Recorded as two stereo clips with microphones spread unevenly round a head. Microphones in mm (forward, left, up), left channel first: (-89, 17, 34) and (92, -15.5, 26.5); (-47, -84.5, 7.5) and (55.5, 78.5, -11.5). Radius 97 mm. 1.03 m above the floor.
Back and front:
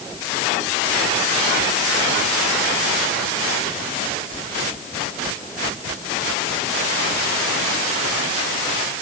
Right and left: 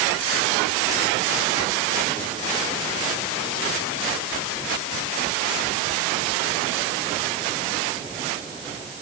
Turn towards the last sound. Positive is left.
No sound to turn to.